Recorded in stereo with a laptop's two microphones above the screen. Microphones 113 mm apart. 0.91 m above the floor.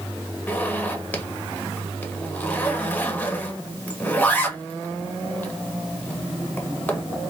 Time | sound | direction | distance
0.5 | a zipper | 15° left (ahead or behind) | 1.0 m